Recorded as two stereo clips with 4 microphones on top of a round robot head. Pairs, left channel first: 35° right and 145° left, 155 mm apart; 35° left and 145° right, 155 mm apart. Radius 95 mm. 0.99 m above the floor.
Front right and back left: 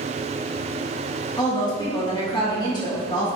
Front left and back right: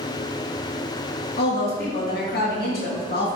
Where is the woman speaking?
25° left, 2 m.